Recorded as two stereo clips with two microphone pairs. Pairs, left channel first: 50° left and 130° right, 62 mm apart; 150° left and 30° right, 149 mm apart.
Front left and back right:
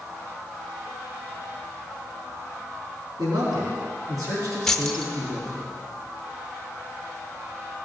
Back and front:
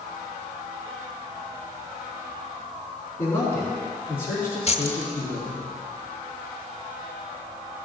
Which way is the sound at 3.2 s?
140° right.